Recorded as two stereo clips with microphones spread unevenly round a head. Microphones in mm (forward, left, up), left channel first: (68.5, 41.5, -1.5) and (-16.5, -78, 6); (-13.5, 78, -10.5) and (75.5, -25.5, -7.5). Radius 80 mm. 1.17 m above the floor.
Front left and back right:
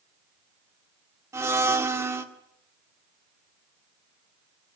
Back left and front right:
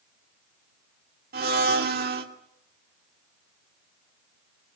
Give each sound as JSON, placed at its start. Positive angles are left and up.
{"t": 1.3, "sound": "a blender", "azimuth_deg": -55, "distance_m": 2.0}